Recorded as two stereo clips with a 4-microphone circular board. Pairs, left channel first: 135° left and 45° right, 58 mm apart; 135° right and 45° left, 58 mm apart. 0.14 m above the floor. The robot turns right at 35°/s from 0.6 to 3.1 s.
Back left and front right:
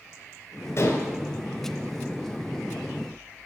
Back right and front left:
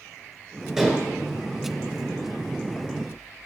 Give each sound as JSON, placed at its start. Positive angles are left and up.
{"t": 0.8, "sound": "dishes clattering", "azimuth_deg": 120, "distance_m": 1.1}